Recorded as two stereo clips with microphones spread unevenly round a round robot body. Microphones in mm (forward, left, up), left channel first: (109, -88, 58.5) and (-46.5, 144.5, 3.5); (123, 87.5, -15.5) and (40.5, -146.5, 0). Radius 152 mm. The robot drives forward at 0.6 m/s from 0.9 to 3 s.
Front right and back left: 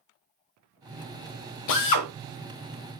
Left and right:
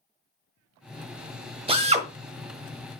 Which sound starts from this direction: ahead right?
A drill, at 1.7 s.